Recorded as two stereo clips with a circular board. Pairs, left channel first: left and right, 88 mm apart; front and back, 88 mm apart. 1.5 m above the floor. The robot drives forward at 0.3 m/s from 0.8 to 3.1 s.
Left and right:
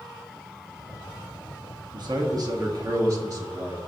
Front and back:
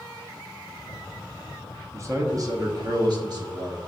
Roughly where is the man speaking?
Behind right.